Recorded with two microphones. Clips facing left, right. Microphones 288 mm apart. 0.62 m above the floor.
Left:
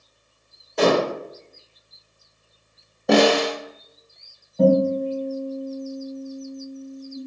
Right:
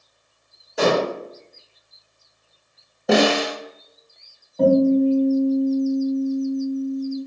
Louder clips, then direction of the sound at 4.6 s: Right 3 dB; 5° left (ahead or behind).